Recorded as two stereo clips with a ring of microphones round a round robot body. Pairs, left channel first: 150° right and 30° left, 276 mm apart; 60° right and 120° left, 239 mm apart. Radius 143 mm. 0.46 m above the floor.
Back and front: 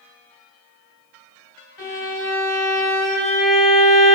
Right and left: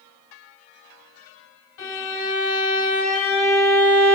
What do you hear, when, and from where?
1.8 s a violin: 95° right, 1.5 m